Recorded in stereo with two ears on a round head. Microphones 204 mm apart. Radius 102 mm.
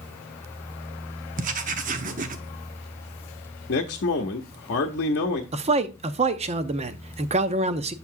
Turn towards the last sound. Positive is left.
turn(degrees=-30)  # may be behind; listen again after turning